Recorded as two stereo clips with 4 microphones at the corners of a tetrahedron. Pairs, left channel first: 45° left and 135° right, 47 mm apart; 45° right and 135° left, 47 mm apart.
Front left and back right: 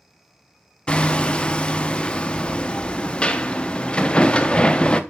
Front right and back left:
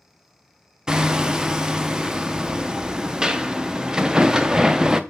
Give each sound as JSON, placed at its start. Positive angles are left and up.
{"t": 0.9, "sound": "hammering", "azimuth_deg": 85, "distance_m": 0.7}